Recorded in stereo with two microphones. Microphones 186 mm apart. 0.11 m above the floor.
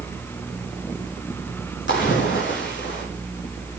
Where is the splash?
75° left (ahead or behind), 5.5 m.